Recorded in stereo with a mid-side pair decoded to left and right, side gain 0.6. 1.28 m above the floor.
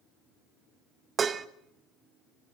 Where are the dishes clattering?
35° right, 1.0 m.